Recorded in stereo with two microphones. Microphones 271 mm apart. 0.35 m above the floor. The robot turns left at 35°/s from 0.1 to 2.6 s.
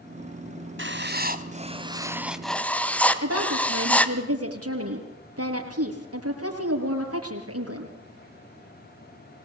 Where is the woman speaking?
70° right (ahead or behind), 7 m.